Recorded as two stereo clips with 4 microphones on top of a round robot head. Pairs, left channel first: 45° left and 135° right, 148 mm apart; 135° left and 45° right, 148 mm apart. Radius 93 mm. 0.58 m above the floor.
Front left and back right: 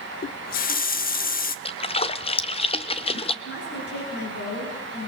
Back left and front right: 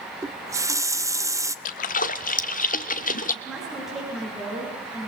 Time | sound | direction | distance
0.2 | a running tap | 25° left | 0.8 m
1.6 | a splash | 100° left | 1.0 m
3.5 | a woman speaking | 40° left | 9 m